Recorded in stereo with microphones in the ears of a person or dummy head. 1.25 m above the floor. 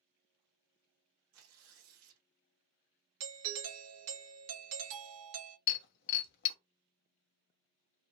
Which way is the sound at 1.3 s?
70° right (ahead or behind).